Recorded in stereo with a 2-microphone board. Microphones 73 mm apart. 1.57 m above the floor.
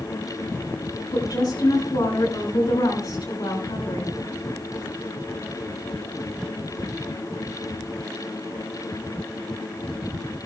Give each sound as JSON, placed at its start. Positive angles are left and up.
{"t": 1.1, "sound": "a woman speaking", "side_deg": 70, "distance_m": 6.0}